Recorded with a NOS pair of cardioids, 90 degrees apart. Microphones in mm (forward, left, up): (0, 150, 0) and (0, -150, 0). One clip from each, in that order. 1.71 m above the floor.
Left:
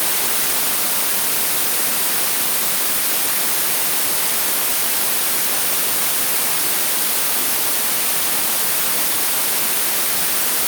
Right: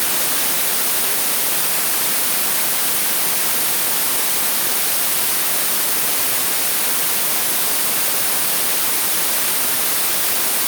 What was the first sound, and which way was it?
Only background noise.